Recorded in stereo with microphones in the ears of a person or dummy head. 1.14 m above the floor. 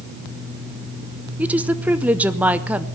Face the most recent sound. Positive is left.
turn(degrees=-10)  # may be behind; listen again after turning